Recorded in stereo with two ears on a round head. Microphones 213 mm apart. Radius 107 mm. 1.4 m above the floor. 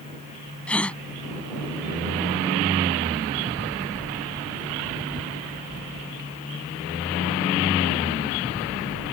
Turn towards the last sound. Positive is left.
turn(degrees=5)  # may be behind; listen again after turning